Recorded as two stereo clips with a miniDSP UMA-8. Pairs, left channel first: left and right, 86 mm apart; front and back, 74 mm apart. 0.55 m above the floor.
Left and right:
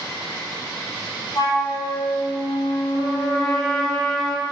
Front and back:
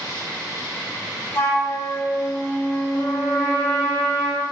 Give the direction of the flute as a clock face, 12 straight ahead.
10 o'clock.